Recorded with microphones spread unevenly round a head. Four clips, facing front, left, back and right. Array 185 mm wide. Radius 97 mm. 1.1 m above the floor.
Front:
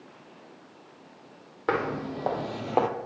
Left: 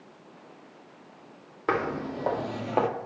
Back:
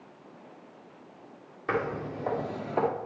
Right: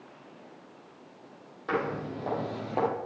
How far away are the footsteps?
About 2.5 m.